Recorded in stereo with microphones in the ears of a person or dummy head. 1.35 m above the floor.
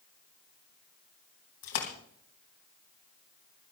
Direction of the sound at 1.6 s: 65° left (ahead or behind).